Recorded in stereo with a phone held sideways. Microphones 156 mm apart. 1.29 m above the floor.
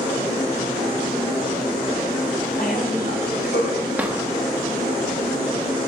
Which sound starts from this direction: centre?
A drawer, at 4.0 s.